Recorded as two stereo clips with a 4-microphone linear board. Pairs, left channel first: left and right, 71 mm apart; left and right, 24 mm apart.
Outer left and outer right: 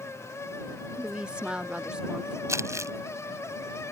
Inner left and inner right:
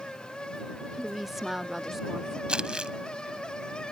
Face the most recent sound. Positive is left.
turn(degrees=-45)  # may be behind; listen again after turning